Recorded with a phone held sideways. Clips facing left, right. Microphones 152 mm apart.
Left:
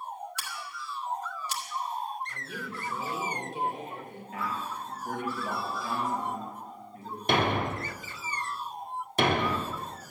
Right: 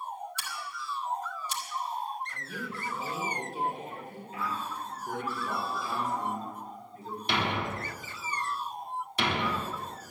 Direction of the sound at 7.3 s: 50° left (ahead or behind).